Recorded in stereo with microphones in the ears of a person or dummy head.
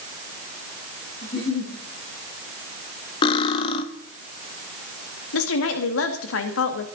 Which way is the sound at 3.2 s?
35° left (ahead or behind).